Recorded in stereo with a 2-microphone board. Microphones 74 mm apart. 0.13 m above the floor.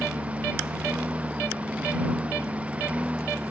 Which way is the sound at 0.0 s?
15° right (ahead or behind).